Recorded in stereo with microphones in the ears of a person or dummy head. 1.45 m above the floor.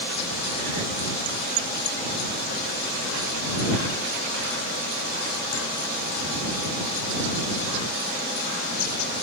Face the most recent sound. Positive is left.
No sound to turn to.